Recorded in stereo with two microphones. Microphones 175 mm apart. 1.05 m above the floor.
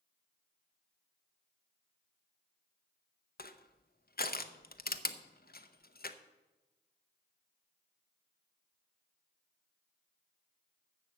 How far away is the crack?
No crack in this recording.